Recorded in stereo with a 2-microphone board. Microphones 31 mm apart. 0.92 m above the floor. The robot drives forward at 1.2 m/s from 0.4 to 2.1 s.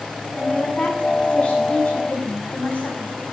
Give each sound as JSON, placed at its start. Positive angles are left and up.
{"t": 0.3, "sound": "a woman speaking", "side_deg": 35, "distance_m": 8.0}